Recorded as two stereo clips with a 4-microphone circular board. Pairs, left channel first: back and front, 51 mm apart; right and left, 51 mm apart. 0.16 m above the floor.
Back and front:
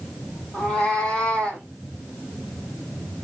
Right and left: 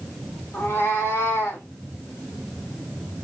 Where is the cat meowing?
105° right, 2.5 m; by 1.6 s 110° right, 3 m.